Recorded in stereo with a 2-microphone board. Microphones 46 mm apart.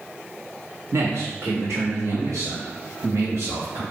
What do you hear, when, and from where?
0.9 s a man speaking: 75° right (ahead or behind), 1.4 m; by 3.8 s 80° right, 4 m